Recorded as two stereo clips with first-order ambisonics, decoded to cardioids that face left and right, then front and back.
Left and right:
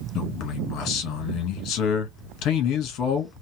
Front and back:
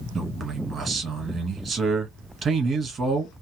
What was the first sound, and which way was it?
A man speaking, 115° left.